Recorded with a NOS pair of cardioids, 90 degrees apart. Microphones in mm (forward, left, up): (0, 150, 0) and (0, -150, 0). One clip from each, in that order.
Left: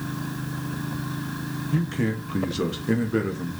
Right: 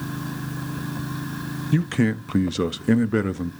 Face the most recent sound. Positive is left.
turn(degrees=-60)